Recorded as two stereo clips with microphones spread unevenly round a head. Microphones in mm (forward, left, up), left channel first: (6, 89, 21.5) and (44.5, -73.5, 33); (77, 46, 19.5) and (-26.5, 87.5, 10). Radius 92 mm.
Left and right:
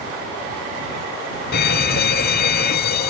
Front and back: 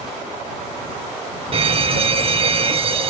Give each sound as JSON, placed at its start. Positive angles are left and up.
{"t": 1.5, "sound": "a fire alarm", "azimuth_deg": 130}